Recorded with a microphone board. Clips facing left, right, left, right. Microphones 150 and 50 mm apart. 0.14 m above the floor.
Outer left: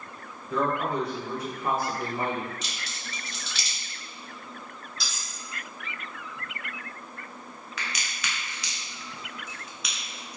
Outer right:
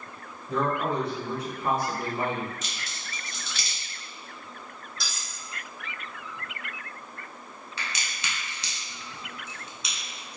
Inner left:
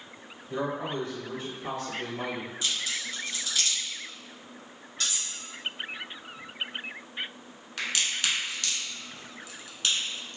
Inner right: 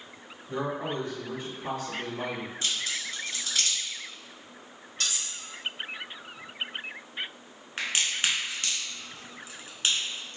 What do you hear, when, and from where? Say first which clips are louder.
0.5 s a man speaking: even, even; 30° right (ahead or behind), 1.5 m; by 2.5 s 15° right (ahead or behind), 1.7 m
2.6 s a crack: even, even; 45° right (ahead or behind), 1.9 m
5.0 s cutlery clinking: outer right 2 dB, inner right 1 dB; 50° right (ahead or behind), 1.7 m
7.8 s a crack: even, inner right 1 dB; 30° right (ahead or behind), 0.7 m